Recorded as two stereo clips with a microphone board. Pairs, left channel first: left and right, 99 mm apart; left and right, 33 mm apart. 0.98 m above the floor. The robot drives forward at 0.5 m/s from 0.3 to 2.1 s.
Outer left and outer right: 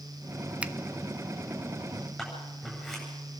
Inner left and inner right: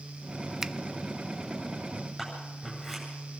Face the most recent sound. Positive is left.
turn(degrees=5)  # may be behind; listen again after turning